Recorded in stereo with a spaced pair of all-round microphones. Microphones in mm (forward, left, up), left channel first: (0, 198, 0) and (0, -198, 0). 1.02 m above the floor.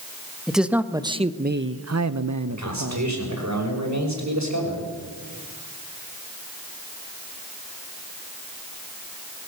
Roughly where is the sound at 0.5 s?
Centre.